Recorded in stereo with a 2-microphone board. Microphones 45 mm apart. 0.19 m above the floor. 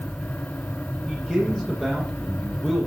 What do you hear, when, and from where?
1.1 s a man speaking: 5° left (ahead or behind), 7.5 m